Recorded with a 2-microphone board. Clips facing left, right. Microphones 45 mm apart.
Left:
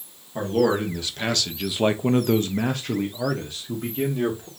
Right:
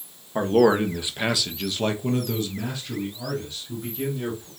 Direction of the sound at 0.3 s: 35° right (ahead or behind).